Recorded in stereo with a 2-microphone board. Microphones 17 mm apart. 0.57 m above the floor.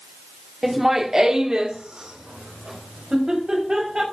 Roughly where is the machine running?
No machine running in this recording.